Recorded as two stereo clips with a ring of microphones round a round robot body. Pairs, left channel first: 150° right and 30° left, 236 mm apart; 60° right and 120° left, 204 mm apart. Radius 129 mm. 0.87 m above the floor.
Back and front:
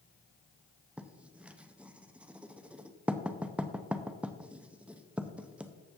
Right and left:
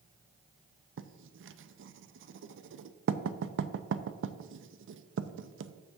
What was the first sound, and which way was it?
Writing, 115° left.